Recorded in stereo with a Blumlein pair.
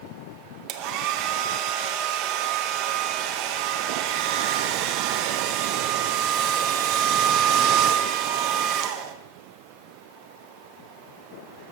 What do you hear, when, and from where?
0.7 s a hair dryer: 40° right, 0.9 m